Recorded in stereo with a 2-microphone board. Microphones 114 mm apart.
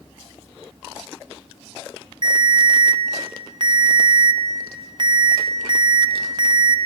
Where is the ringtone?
40° right (ahead or behind), 0.6 m.